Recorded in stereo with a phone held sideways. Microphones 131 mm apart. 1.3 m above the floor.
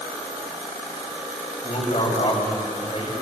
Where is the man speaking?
50° left (ahead or behind), 8 m.